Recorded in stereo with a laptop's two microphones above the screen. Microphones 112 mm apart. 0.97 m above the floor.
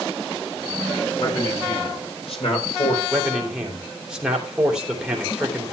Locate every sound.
1.2 s a man speaking: 50° left (ahead or behind), 6.5 m; by 3.0 s 70° left (ahead or behind), 4 m
3.1 s a man speaking: 5° right (ahead or behind), 3 m